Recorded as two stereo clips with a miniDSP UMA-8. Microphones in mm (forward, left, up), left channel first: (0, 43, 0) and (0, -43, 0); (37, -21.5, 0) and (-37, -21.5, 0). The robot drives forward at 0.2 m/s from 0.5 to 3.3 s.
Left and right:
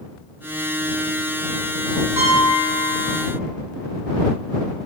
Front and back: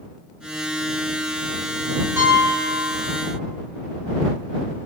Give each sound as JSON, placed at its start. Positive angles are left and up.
{"t": 2.2, "sound": "a piano", "azimuth_deg": -135, "distance_m": 1.4}